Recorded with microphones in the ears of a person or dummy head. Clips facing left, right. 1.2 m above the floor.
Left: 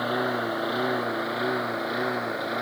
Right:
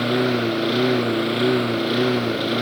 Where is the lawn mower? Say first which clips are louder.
Right 7 dB; 35° right (ahead or behind); by 2.6 s 40° right (ahead or behind).